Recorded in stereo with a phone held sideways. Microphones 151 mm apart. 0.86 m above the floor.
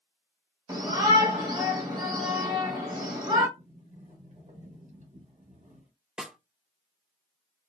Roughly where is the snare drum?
Centre.